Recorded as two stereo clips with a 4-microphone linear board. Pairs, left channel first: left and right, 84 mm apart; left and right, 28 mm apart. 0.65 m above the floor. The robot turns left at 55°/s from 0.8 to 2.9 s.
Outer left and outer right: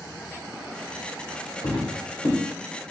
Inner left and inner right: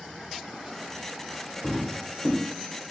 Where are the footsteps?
60° left (ahead or behind), 1.1 m; by 2.4 s 40° left (ahead or behind), 1.1 m.